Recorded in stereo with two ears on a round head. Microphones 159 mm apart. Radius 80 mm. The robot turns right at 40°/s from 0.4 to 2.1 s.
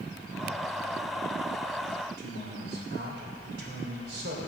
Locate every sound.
2.2 s a man speaking: 65° right (ahead or behind), 3 m